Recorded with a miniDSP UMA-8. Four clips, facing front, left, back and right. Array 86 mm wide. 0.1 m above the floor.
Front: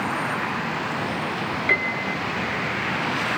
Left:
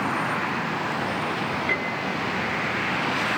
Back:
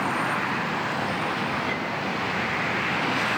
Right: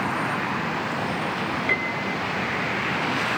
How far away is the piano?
About 2 m.